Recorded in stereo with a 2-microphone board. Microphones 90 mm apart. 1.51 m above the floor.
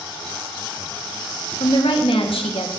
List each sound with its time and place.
1.6 s a woman speaking: 80° left, 1.8 m